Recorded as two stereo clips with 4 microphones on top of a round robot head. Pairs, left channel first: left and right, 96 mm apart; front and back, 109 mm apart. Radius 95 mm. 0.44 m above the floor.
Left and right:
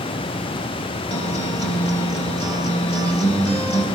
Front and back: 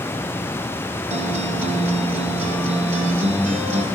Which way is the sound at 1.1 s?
170° left.